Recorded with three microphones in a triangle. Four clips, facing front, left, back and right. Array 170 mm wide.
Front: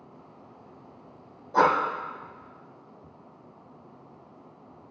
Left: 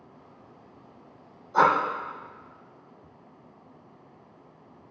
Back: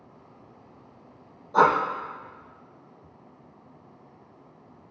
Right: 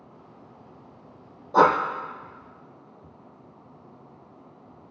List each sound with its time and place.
1.5 s breathing: 80° right, 1.6 m